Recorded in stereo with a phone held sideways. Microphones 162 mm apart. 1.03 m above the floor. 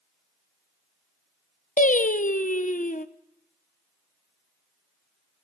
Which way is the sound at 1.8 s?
55° left (ahead or behind).